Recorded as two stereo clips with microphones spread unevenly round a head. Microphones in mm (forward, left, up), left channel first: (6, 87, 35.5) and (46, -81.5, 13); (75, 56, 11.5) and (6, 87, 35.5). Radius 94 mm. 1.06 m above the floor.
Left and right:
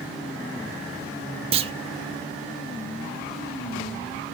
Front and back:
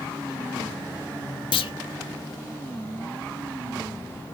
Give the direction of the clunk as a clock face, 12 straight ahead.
1 o'clock.